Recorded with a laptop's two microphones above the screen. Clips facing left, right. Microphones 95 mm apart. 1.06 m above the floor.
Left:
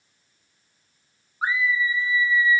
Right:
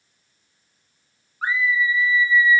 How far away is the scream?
About 1.3 m.